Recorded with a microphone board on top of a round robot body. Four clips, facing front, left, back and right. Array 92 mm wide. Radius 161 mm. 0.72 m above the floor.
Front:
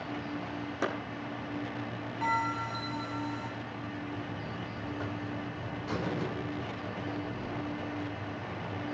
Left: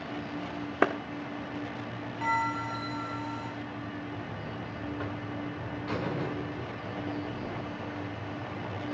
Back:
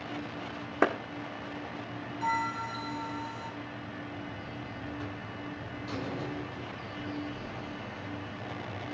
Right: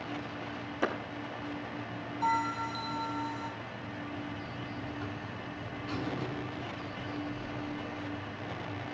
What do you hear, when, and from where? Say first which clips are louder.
0.8 s a clap: left 6 dB, back 7 dB; 125° left, 1.6 m
2.2 s a bell: left 1 dB, even; 55° left, 7 m
4.1 s a buzzer: left 1 dB, front 2 dB; 65° left, 1.8 m